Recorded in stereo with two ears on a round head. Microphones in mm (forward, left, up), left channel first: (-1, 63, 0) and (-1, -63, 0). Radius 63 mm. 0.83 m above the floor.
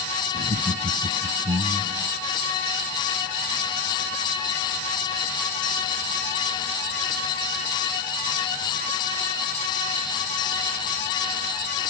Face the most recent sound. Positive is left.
turn(degrees=-40)  # may be behind; listen again after turning